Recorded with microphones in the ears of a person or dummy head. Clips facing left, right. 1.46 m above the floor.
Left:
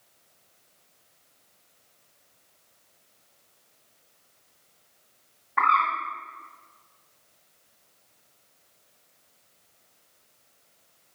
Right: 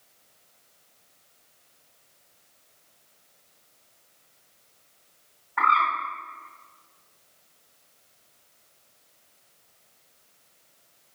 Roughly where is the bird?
Left.